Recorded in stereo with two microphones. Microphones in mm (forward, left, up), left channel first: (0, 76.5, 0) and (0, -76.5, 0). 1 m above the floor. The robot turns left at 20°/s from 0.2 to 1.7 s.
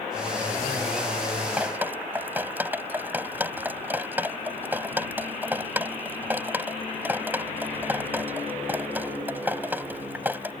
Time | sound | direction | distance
1.6 | dripping | 10° right (ahead or behind) | ?